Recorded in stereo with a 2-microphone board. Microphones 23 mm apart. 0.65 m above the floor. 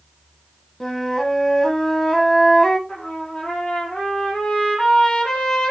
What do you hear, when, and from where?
0.8 s a flute: 25° left (ahead or behind), 1.6 m
2.9 s a trumpet: 40° left (ahead or behind), 4.5 m